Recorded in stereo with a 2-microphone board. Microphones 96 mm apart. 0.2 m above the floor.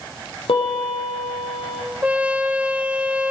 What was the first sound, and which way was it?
A piano, 75° left (ahead or behind).